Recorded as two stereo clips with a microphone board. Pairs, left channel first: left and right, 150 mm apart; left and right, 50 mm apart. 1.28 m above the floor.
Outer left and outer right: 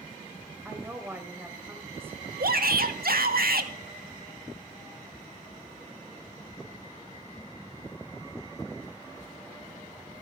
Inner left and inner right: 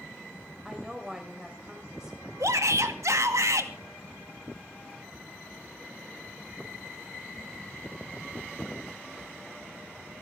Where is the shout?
85° right, 2 m.